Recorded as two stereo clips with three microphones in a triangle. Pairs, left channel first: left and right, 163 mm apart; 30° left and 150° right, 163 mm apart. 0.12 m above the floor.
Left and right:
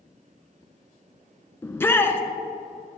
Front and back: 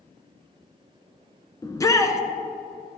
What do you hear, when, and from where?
1.6 s a shout: 40° left, 1.1 m